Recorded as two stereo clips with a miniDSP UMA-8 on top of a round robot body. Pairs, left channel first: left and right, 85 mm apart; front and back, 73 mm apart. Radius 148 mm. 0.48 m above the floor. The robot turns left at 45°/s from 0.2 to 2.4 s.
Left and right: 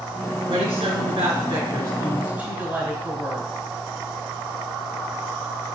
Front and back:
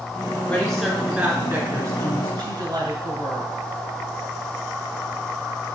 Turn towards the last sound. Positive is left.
turn(degrees=-160)